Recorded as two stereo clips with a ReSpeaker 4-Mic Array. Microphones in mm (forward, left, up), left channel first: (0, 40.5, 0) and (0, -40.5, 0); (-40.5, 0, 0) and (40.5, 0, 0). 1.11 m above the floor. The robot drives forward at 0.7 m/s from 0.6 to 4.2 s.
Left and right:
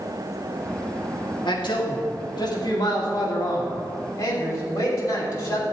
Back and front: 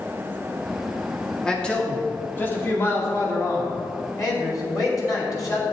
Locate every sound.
1.4 s a man speaking: 100° left, 2 m; by 5.6 s 135° left, 3 m